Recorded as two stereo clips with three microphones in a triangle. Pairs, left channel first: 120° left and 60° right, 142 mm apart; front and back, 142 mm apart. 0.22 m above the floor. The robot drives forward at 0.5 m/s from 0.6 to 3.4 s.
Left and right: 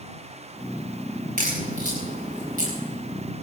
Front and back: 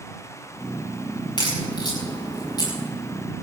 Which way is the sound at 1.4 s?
55° right.